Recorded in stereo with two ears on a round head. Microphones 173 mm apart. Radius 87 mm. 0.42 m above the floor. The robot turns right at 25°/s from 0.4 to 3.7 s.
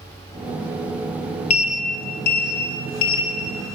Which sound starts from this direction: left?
A sliding door, at 1.5 s.